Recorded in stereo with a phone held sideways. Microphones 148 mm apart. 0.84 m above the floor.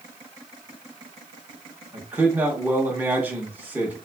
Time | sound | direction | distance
1.9 | a man speaking | 15° right (ahead or behind) | 1.0 m